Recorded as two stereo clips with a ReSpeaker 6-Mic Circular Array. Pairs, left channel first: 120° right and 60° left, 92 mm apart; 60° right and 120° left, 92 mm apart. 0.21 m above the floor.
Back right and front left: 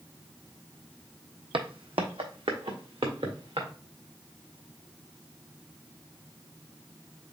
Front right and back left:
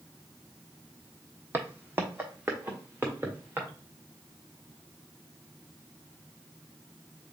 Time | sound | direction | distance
1.5 | footsteps | 55° left | 0.6 m